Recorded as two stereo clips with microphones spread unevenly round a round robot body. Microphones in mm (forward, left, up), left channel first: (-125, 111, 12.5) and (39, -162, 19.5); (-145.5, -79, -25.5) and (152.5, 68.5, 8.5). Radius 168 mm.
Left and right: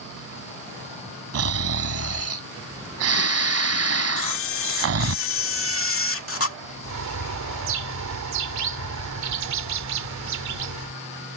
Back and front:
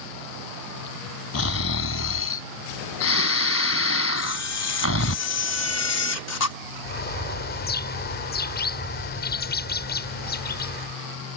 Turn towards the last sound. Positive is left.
turn(degrees=-95)